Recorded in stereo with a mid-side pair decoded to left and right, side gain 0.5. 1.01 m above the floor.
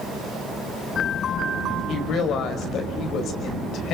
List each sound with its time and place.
1.9 s a woman speaking: 65° left, 6 m